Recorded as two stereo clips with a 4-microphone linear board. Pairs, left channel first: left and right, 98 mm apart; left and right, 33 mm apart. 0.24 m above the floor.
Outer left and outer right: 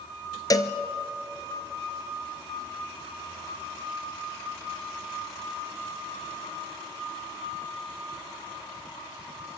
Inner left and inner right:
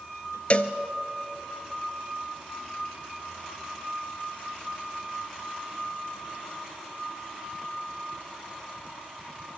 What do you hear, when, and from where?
0.5 s a cowbell: 40° left (ahead or behind), 1.1 m